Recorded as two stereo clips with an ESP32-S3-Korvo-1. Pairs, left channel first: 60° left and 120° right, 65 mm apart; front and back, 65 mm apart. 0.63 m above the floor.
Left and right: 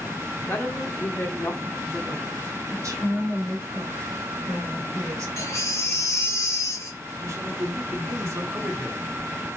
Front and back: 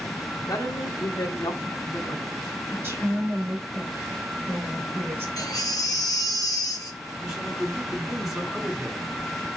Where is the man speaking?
95° right, 2 m.